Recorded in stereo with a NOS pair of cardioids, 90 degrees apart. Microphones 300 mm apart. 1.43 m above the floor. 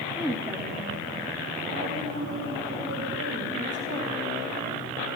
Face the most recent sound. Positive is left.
turn(degrees=-55)